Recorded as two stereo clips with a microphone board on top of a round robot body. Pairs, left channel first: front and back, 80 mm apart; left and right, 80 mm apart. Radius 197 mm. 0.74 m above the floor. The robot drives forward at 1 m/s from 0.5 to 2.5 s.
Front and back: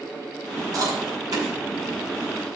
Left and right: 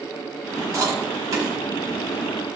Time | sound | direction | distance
0.7 | chewing | 140° right | 4.5 m